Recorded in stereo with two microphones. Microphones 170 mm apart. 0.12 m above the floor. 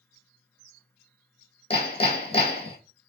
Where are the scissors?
I don't hear scissors.